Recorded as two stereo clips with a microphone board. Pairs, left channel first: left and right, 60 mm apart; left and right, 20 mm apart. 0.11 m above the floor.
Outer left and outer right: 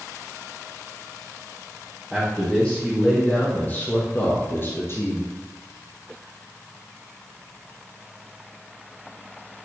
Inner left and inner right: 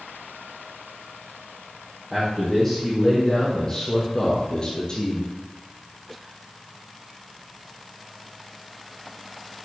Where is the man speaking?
15° left (ahead or behind), 5.5 m; by 5.3 s 50° left (ahead or behind), 3 m.